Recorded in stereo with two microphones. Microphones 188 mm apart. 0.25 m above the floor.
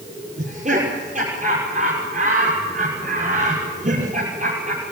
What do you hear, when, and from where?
0.4 s laughter: 45° right (ahead or behind), 6.5 m